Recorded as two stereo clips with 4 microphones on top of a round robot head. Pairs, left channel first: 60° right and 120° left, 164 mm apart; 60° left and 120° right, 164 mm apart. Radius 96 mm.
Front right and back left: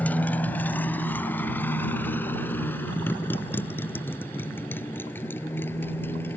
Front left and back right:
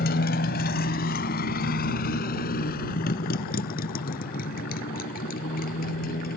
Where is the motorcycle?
25° left; by 6.4 s 20° left.